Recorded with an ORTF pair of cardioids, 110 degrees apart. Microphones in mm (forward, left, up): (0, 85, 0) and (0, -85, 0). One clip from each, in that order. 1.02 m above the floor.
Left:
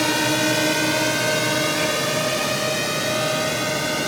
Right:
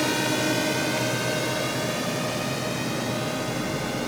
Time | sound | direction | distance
0.0 | a drone | 30° left | ?